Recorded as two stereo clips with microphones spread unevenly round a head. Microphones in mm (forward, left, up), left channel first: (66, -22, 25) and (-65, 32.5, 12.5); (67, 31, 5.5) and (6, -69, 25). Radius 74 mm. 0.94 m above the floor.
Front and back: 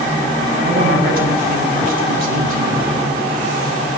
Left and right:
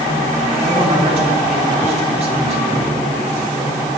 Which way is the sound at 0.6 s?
170° right.